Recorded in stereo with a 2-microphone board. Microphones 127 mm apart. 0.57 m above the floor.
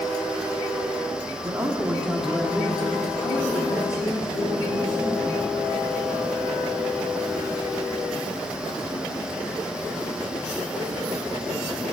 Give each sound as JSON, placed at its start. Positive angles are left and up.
{"t": 1.4, "sound": "a man speaking", "side_deg": -25, "distance_m": 1.3}